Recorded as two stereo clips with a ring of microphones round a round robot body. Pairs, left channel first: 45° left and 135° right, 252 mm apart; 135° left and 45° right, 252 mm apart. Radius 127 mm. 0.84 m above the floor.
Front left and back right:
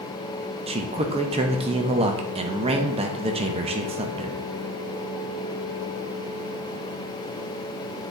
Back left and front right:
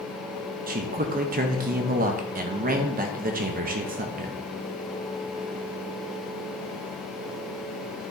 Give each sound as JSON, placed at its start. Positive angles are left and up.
{"t": 0.7, "sound": "a man speaking", "azimuth_deg": -80, "distance_m": 0.7}